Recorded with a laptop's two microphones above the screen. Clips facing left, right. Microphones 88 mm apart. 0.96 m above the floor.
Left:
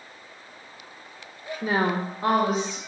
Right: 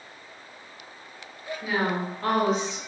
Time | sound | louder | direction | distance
1.6 | a woman speaking | left 3 dB | 40° left (ahead or behind) | 0.6 m